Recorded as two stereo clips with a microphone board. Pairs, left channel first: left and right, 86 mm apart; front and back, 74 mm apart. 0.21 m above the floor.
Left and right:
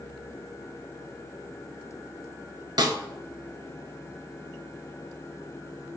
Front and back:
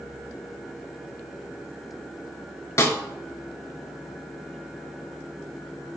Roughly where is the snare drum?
Ahead right.